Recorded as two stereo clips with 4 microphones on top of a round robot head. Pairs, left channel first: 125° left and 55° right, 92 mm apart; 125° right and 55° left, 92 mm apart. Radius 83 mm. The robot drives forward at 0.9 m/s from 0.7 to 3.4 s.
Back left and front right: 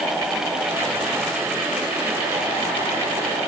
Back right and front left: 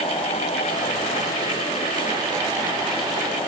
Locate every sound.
Only background noise.